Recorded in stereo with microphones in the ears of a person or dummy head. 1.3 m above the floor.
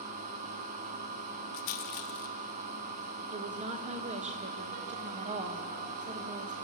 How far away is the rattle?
About 0.8 m.